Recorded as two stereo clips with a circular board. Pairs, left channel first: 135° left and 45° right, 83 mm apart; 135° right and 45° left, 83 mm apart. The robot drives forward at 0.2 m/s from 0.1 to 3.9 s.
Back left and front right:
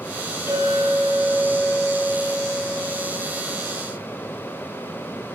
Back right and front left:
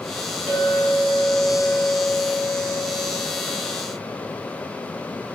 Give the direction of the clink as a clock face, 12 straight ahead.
7 o'clock.